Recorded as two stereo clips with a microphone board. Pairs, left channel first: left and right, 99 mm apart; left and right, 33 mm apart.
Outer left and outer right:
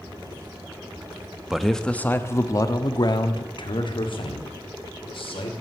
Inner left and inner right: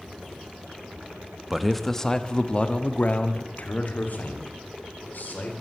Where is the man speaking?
5° right (ahead or behind), 0.7 m; by 5.5 s 70° left (ahead or behind), 2 m.